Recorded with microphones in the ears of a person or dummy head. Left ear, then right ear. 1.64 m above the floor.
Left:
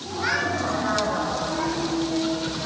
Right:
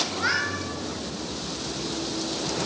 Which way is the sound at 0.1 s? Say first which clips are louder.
Left 1 dB; 10° right (ahead or behind).